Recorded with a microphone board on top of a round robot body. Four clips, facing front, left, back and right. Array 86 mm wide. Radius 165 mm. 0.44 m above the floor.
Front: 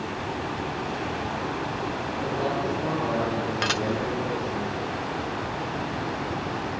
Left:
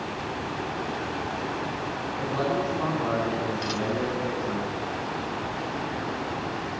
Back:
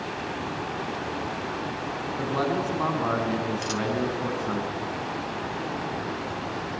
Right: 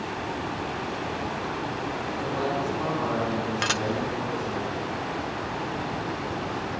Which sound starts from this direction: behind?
A man speaking, at 2.2 s.